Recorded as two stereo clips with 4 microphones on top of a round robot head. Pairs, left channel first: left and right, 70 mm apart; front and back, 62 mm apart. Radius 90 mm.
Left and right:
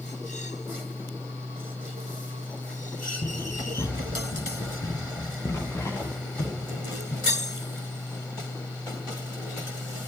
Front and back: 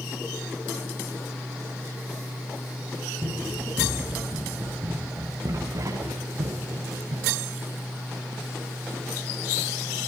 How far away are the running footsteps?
About 8.5 m.